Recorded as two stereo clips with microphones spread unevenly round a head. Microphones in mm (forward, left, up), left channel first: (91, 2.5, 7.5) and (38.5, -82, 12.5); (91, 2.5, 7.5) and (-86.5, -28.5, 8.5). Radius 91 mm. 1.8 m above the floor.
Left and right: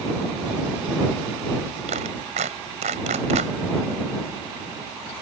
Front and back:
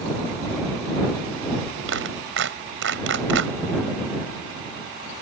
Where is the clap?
150° right.